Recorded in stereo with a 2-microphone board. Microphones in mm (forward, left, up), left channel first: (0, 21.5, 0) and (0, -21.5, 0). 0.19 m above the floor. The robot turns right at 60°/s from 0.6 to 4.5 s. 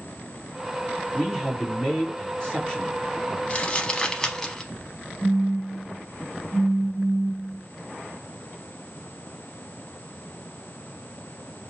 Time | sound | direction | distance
1.1 | a man speaking | 5° left (ahead or behind) | 1.7 m
3.5 | crumpling | 30° left (ahead or behind) | 0.6 m
5.2 | a phone buzzing | 45° right (ahead or behind) | 1.9 m